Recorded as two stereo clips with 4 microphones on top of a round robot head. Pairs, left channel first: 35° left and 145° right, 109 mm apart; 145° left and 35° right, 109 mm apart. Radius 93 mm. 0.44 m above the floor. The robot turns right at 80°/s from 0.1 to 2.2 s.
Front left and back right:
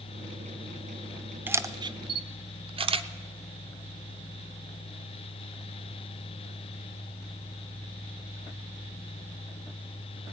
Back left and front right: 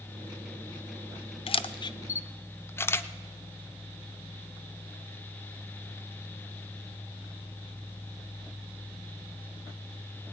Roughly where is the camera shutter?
Behind left.